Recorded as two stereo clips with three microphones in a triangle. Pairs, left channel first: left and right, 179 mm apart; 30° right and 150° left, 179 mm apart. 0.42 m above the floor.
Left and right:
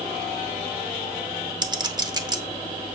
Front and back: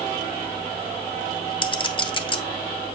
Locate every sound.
1.6 s a clink: 50° right, 0.8 m